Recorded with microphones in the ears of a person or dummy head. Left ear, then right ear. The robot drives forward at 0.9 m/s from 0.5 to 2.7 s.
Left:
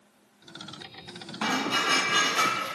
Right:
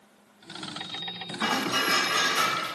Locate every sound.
1.4 s dishes clattering: 25° left (ahead or behind), 1.7 m; by 2.6 s 15° left (ahead or behind), 2.5 m